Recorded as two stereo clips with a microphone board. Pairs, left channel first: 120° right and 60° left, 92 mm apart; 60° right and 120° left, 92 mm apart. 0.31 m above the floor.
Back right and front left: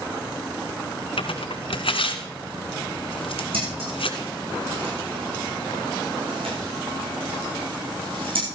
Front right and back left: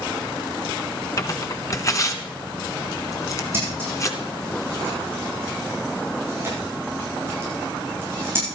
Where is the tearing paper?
115° right, 1.4 m.